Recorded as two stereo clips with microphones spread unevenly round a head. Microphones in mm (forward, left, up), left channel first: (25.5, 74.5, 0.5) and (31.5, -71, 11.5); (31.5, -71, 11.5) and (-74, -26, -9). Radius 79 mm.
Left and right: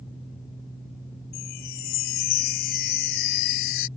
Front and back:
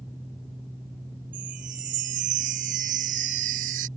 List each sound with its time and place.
1.3 s a chime: 125° left